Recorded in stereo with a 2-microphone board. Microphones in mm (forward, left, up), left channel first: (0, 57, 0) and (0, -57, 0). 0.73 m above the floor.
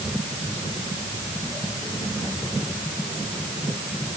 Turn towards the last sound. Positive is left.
No sound to turn to.